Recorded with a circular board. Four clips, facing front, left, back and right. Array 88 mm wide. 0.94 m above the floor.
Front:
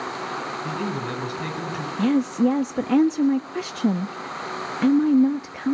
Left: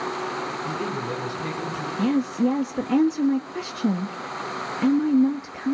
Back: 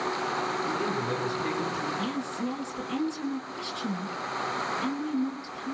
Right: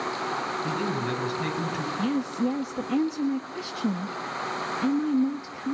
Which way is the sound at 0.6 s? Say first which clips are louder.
Even, front 1 dB; 45° right.